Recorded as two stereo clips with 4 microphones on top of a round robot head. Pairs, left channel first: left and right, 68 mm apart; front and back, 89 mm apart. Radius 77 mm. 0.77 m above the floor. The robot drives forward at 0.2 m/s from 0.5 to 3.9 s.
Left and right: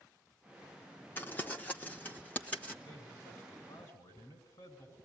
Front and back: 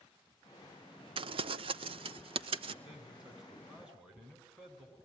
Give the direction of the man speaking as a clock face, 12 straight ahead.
9 o'clock.